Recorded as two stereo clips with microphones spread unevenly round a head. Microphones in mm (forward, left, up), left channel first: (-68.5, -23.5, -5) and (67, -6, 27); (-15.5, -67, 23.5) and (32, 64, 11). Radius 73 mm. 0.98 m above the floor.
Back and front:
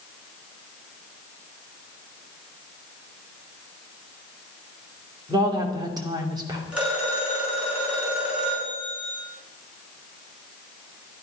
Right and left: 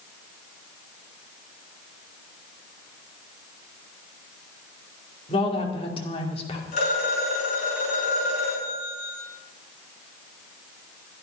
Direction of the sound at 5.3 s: 55° right.